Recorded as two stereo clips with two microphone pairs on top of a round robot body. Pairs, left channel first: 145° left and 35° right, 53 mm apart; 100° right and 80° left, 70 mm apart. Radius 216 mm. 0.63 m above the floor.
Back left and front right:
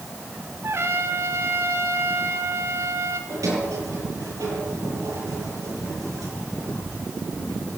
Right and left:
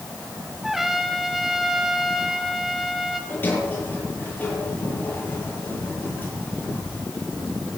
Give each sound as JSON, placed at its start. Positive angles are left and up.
{"t": 0.6, "sound": "a trumpet", "azimuth_deg": -5, "distance_m": 2.5}
{"t": 3.3, "sound": "a sliding door", "azimuth_deg": -40, "distance_m": 9.5}